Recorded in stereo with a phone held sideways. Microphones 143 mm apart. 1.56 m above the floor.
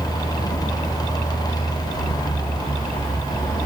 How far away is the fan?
About 1.1 m.